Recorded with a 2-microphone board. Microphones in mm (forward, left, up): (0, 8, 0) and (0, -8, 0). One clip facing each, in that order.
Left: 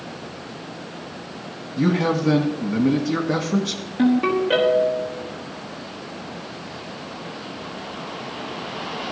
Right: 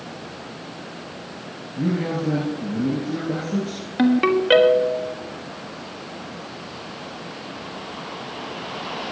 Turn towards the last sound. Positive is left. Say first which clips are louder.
# right 1 dB
turn(degrees=-40)  # may be behind; listen again after turning